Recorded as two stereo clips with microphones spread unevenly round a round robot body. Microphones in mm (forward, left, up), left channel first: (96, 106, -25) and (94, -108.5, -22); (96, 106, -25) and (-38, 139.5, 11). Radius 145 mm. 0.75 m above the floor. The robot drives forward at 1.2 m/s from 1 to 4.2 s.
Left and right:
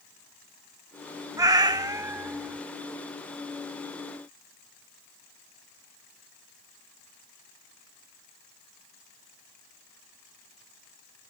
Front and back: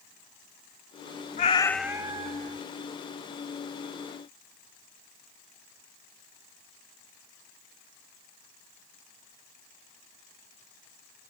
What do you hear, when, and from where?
1.4 s a cat meowing: 25° right; by 2.6 s 175° right